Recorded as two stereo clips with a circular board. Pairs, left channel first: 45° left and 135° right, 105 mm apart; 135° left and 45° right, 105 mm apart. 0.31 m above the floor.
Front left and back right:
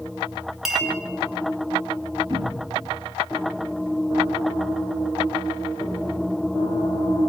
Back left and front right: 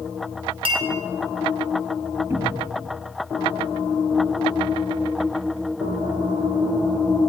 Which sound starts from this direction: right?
A cupboard door, at 2.3 s.